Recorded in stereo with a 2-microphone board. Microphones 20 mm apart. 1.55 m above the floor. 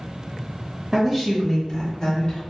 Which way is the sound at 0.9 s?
10° right (ahead or behind).